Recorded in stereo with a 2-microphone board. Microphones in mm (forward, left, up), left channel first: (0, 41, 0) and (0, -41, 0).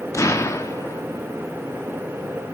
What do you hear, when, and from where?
0.1 s an explosion: 35° left (ahead or behind), 1.4 m